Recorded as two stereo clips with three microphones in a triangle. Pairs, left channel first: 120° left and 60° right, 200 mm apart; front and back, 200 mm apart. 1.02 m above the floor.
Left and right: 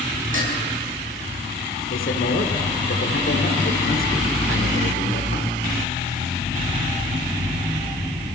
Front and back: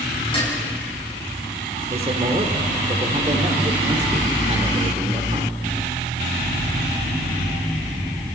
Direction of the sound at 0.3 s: 60° right.